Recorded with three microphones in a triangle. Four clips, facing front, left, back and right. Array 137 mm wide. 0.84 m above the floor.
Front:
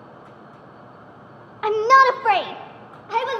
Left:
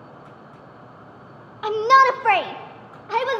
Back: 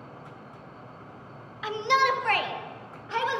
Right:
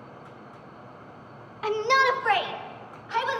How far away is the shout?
About 0.9 m.